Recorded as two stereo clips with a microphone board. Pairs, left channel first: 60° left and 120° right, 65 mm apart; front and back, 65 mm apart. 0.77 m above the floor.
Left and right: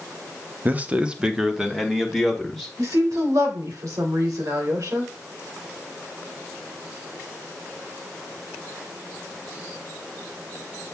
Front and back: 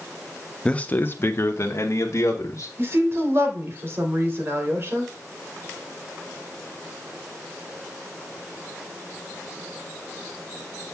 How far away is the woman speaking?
About 3 m.